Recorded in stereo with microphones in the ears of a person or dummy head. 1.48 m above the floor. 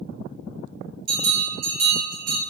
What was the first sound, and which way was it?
A bell, 30° right (ahead or behind).